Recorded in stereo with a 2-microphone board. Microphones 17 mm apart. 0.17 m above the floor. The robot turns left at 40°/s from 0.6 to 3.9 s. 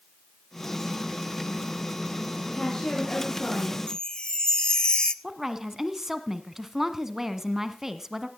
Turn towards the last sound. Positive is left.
turn(degrees=-20)  # may be behind; listen again after turning